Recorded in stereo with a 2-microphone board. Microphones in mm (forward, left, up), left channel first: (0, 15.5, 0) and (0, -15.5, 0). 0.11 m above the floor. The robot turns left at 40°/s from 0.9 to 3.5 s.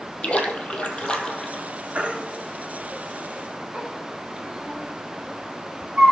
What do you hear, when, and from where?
0.2 s a splash: 35° left (ahead or behind), 1.0 m; by 1.6 s 10° left (ahead or behind), 1.0 m
1.9 s a baby crying: 40° right (ahead or behind), 1.3 m; by 6.1 s 35° right (ahead or behind), 1.3 m